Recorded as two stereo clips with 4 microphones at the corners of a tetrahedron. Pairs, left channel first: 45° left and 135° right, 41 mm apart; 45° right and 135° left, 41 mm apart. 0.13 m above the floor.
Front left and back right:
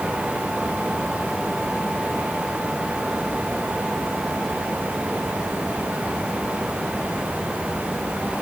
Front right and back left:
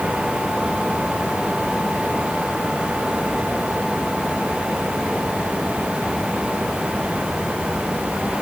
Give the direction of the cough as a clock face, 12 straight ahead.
No cough in this recording.